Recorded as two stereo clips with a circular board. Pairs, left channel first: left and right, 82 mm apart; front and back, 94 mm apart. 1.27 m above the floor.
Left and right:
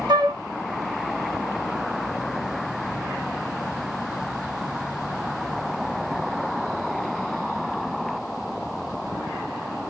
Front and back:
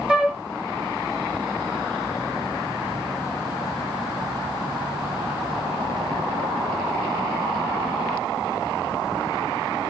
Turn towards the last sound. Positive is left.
turn(degrees=-105)